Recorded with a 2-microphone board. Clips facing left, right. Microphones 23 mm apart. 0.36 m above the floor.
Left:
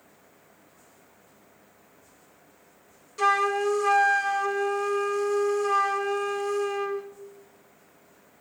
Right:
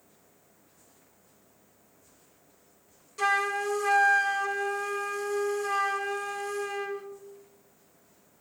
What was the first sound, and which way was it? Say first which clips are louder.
A flute: left 4 dB; 10° left (ahead or behind).